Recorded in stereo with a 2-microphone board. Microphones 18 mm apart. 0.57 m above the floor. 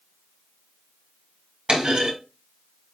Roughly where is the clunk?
Right.